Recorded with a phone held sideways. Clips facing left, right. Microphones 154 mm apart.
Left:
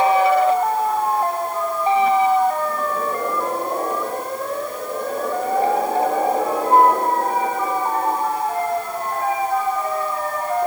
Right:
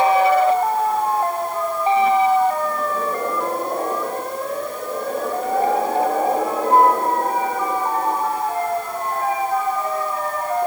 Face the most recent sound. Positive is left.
No sound to turn to.